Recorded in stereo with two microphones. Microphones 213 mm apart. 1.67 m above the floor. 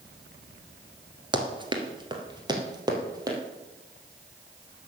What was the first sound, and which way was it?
Running footsteps, 20° right (ahead or behind).